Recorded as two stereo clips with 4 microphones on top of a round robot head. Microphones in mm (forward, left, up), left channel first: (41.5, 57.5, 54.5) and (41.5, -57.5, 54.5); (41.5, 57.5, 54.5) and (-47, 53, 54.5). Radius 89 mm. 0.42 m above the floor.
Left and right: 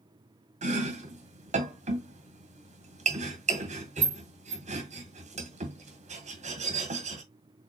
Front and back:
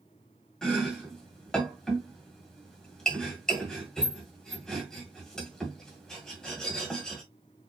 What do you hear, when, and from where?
0.6 s chopping: 80° right, 1.8 m